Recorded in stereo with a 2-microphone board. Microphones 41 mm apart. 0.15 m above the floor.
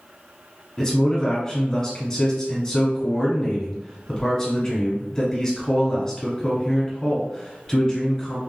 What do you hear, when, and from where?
0.8 s a man speaking: 15° left (ahead or behind), 1.1 m